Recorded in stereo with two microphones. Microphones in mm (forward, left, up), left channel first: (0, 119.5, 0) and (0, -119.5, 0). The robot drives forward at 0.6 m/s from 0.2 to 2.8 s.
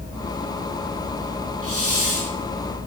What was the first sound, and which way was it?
A hiss, 70° right (ahead or behind).